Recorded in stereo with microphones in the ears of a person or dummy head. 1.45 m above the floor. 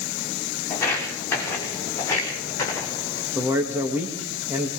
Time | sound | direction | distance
0.7 | footsteps | 15° left (ahead or behind) | 7 m
3.4 | a man speaking | 15° right (ahead or behind) | 2.5 m